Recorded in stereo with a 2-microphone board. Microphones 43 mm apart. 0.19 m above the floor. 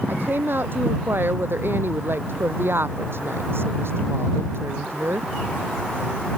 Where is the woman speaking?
55° right (ahead or behind); by 5.3 s 70° right (ahead or behind).